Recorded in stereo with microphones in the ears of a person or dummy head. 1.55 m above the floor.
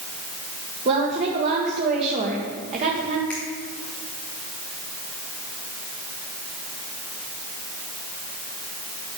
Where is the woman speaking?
35° right (ahead or behind), 1.6 m.